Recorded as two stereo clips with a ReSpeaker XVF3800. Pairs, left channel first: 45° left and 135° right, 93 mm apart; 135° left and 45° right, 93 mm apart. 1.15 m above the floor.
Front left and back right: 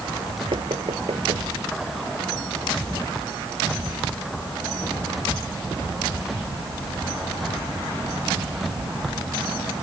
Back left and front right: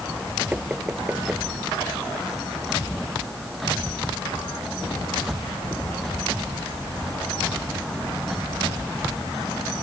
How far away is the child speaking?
No child speaking in this recording.